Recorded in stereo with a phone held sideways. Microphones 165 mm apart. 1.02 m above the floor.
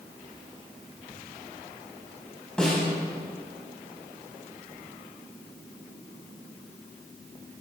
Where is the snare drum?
5° left (ahead or behind), 7.5 m.